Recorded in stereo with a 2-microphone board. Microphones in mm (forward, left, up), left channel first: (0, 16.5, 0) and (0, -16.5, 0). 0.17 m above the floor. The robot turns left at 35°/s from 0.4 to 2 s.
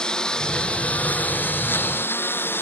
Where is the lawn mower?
20° left (ahead or behind); by 2.6 s 75° left (ahead or behind).